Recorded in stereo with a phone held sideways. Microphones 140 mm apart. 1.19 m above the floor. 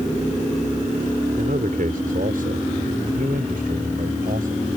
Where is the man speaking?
85° right.